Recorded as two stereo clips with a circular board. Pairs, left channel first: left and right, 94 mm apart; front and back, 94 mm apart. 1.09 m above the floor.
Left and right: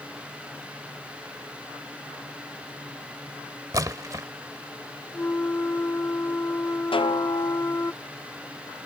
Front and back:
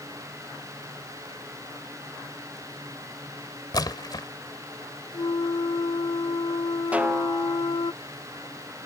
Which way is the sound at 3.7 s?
40° right.